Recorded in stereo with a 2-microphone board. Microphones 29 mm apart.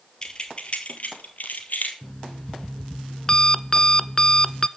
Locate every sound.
0.2 s keys jangling: 25° left (ahead or behind), 2 m; by 1.9 s 70° left (ahead or behind), 2.5 m
2.0 s an alarm clock: 25° left (ahead or behind), 0.5 m